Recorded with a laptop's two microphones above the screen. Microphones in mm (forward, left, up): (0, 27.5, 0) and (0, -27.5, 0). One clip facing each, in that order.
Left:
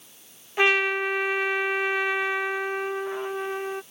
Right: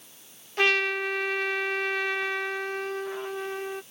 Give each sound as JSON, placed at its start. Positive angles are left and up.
{"t": 0.6, "sound": "a trumpet", "side_deg": 15}